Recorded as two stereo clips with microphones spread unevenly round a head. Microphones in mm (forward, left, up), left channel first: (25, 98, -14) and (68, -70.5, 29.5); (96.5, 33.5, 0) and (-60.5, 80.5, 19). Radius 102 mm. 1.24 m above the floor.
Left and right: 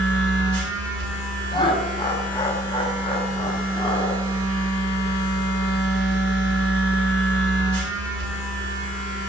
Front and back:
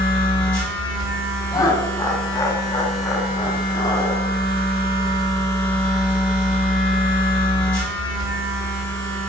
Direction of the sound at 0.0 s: 70° right.